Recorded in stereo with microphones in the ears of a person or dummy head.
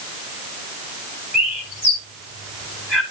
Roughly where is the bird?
Centre.